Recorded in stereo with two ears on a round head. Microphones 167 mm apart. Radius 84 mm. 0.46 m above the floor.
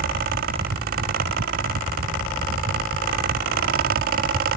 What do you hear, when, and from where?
Only background noise.